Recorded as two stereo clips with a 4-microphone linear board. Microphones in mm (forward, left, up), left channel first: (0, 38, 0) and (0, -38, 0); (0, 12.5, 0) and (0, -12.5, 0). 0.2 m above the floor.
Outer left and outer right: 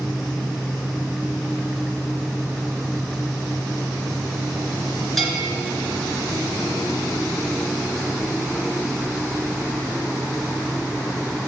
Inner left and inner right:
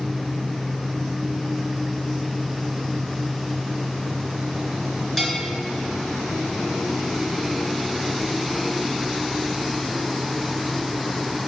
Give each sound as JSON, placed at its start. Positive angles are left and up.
{"t": 5.2, "sound": "a bell", "side_deg": 0, "distance_m": 3.0}